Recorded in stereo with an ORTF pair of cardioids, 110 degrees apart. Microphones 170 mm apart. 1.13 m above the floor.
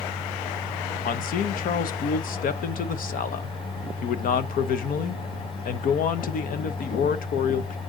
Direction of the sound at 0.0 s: 35° left.